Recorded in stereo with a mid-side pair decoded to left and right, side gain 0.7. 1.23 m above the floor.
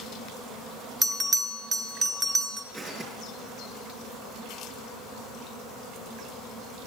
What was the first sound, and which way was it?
A bell, 20° right.